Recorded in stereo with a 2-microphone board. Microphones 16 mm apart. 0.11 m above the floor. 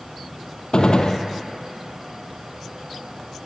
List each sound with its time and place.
0.7 s a gunshot: 65° left (ahead or behind), 1.9 m